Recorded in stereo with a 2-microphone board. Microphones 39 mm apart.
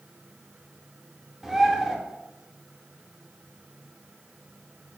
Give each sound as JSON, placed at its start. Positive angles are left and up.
{"t": 1.4, "sound": "a bird", "side_deg": -10, "distance_m": 0.5}